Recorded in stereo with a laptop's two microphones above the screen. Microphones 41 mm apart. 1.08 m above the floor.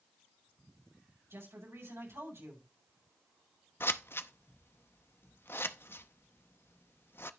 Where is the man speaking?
85° right, 7 m.